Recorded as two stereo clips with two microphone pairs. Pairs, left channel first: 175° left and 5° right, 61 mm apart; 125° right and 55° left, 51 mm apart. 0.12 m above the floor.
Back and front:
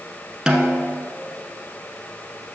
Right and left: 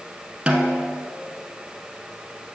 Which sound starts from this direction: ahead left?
A snare drum, at 0.5 s.